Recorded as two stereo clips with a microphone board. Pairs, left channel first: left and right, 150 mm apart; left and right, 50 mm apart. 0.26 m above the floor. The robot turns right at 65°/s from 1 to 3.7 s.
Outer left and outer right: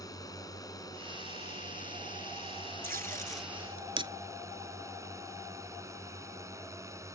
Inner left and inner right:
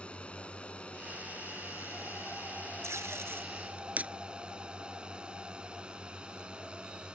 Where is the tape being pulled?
80° right; by 4.1 s 35° right (ahead or behind).